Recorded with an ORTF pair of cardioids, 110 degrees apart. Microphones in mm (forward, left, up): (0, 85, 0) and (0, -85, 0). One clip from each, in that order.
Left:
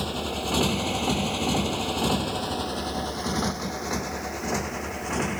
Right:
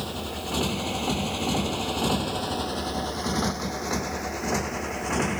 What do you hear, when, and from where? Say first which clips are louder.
0.0 s a motorcycle: left 3 dB; 65° left; by 5.4 s 25° right